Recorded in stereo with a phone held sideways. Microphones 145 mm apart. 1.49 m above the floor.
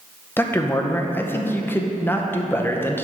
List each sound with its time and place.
0.4 s a man speaking: 15° left (ahead or behind), 0.7 m